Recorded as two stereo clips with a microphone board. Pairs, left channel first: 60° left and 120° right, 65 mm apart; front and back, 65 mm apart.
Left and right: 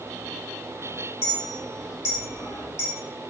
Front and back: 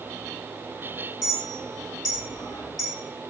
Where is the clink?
15° left, 1.8 m.